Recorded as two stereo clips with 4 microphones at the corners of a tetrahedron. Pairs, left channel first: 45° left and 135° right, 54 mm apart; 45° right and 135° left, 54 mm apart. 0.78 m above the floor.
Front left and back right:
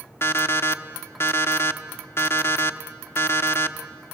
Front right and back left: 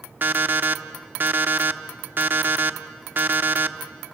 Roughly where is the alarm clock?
Left.